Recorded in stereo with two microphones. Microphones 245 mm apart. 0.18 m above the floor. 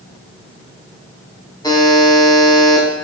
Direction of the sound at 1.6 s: 15° left (ahead or behind).